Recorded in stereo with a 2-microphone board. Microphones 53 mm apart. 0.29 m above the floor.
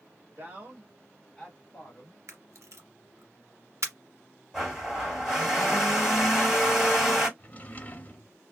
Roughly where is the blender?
Centre.